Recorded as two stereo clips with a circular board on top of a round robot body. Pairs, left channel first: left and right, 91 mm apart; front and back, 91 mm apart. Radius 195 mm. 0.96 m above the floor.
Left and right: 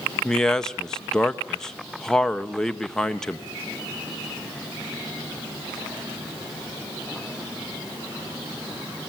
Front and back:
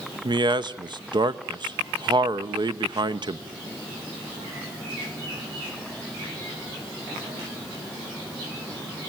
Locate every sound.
0.2 s a man speaking: 175° left, 1.0 m